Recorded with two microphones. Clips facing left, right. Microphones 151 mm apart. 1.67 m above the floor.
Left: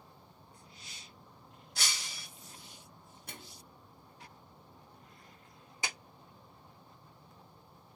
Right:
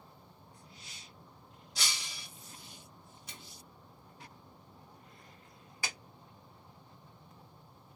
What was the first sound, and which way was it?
Breaking glass, 50° left (ahead or behind).